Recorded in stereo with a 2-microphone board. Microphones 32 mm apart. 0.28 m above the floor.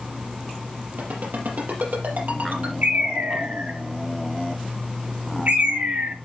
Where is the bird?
70° right (ahead or behind), 4.5 m.